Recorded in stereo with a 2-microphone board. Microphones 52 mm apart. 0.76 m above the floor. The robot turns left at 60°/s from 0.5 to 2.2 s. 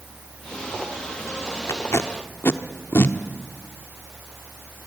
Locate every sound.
1.7 s tape being pulled: 80° left, 1.0 m; by 3.2 s 55° left (ahead or behind), 1.0 m